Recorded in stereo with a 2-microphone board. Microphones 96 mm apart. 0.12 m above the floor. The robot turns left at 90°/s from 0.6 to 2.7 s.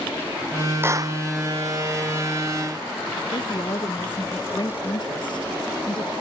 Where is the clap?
25° right; by 1.2 s 60° right.